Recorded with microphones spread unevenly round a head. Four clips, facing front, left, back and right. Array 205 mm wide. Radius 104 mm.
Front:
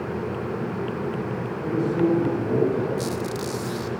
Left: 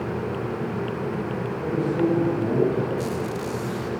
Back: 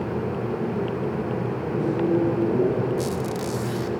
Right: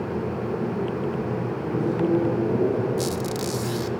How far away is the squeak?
About 2.0 m.